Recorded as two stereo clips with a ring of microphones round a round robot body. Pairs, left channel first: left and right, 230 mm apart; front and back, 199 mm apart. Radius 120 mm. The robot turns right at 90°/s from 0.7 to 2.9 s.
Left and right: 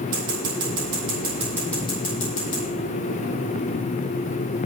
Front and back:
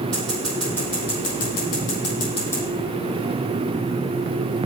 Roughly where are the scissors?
Right.